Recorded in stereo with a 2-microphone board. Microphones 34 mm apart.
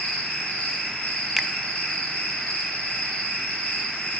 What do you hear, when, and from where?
0.0 s an insect: 65° left (ahead or behind), 5 m
1.4 s a finger snap: 5° right (ahead or behind), 0.8 m